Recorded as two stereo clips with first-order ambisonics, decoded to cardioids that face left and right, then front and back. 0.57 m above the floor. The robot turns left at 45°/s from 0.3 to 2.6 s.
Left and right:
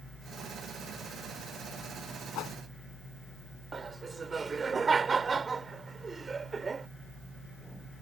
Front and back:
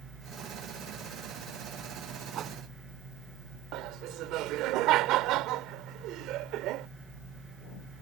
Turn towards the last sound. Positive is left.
turn(degrees=-160)